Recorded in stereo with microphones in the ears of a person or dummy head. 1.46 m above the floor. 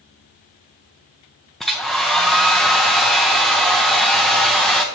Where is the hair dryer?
Centre (ahead or behind), 0.5 m.